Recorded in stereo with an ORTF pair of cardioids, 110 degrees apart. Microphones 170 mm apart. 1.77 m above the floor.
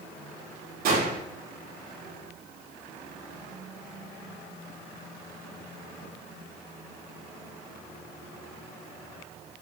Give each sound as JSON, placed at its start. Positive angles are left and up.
{"t": 0.8, "sound": "a gunshot", "azimuth_deg": -65, "distance_m": 6.0}